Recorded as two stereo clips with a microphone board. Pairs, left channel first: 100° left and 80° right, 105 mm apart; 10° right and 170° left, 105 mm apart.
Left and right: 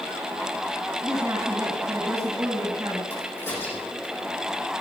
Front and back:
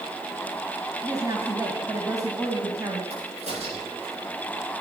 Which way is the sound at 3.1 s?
165° left.